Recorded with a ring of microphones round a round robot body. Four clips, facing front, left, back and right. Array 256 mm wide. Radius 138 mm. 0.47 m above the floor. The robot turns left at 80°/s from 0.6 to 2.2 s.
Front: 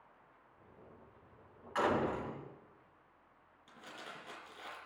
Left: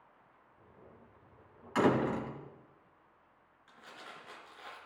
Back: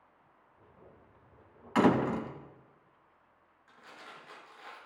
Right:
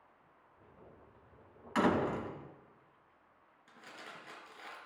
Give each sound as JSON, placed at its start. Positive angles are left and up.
{"t": 1.8, "sound": "a door slam", "azimuth_deg": -170, "distance_m": 3.0}
{"t": 3.7, "sound": "crumpling", "azimuth_deg": -35, "distance_m": 4.0}